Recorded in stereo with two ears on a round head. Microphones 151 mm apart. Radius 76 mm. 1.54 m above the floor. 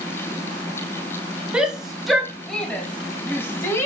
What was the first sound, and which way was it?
A shout, 5° right (ahead or behind).